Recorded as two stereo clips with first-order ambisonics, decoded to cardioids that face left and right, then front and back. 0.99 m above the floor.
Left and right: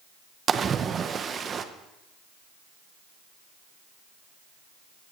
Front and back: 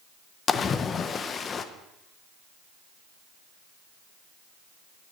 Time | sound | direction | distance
0.5 | a splash | 45° right | 0.5 m